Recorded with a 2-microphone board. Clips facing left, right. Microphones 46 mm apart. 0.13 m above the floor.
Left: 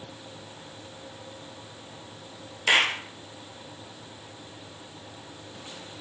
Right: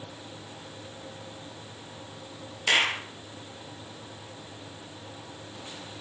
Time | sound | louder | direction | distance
2.7 | a clap | left 2 dB | 15° left (ahead or behind) | 1.9 m